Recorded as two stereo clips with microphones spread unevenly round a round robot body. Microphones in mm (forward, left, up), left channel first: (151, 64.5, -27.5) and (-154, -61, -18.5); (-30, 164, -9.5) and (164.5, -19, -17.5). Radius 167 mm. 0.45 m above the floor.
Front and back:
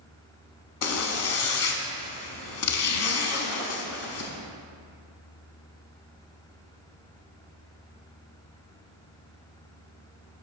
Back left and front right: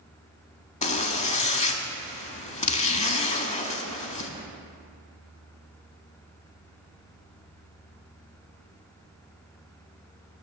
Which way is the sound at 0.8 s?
70° left.